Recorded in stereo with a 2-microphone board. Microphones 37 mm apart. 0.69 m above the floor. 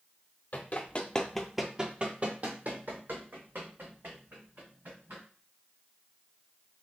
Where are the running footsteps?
45° left (ahead or behind), 0.9 m; by 5.2 s 75° right (ahead or behind), 3 m.